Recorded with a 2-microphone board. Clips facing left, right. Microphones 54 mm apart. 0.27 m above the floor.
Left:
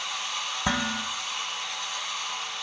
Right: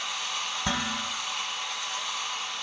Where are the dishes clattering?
20° left (ahead or behind), 1.3 m.